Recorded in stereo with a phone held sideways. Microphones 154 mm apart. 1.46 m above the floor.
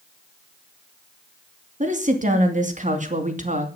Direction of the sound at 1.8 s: 55° right (ahead or behind).